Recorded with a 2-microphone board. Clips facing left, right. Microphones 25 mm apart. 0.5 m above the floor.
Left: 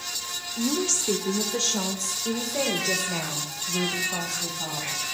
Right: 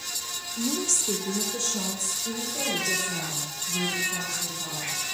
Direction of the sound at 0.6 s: 15° left (ahead or behind).